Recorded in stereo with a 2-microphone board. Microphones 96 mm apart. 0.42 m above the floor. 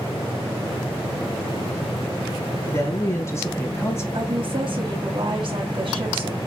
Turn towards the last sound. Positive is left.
turn(degrees=-55)  # may be behind; listen again after turning